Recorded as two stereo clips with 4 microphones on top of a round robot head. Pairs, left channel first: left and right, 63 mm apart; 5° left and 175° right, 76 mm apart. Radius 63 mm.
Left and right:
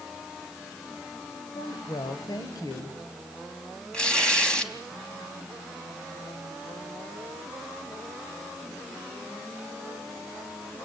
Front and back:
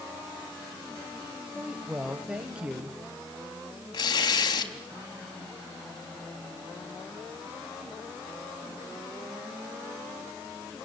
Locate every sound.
1.5 s a woman speaking: 105° left, 2 m
3.9 s tearing paper: 15° left, 4 m